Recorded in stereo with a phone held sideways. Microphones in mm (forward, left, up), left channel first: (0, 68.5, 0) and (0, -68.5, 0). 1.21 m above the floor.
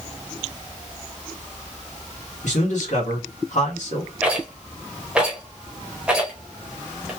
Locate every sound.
2.4 s a man speaking: 65° left (ahead or behind), 1.3 m
4.2 s a rattle: 5° right (ahead or behind), 1.0 m